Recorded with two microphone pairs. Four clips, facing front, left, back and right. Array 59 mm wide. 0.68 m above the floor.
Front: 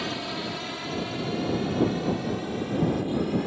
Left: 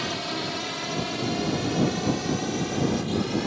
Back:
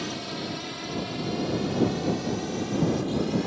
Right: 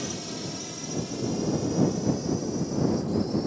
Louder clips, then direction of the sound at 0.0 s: Left 5 dB, front 2 dB; 65° left.